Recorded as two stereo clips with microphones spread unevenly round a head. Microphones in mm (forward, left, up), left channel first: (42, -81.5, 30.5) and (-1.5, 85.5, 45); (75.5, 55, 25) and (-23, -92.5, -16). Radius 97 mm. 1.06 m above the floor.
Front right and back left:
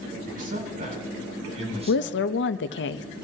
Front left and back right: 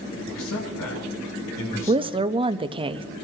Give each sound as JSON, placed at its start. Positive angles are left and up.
{"t": 0.3, "sound": "a man speaking", "azimuth_deg": 65, "distance_m": 7.5}
{"t": 1.9, "sound": "a woman speaking", "azimuth_deg": -65, "distance_m": 0.9}